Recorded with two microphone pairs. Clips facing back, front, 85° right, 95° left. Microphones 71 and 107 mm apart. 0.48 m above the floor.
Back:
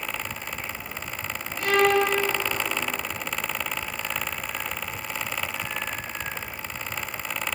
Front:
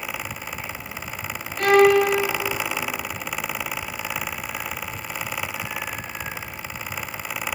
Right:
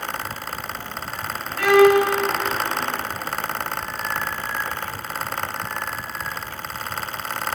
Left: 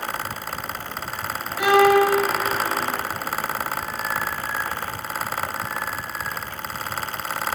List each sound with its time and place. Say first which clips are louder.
1.6 s a violin: front 6 dB, right 2 dB; 25° left, 4.5 m